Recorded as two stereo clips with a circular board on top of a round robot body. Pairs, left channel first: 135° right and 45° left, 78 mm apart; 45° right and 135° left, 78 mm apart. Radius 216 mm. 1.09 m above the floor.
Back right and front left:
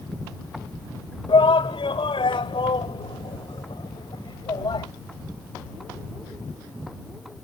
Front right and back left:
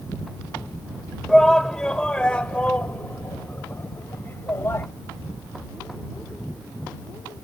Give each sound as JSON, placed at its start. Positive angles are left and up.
{"t": 1.3, "sound": "a shout", "azimuth_deg": -130}